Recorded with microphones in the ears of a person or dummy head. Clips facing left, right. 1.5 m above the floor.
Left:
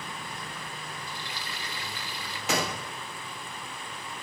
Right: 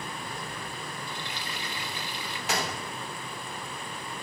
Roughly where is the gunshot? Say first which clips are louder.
Left 2 dB; left.